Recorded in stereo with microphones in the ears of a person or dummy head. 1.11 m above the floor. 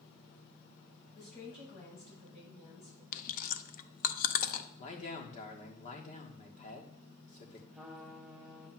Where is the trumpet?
Centre (ahead or behind), 1.3 m.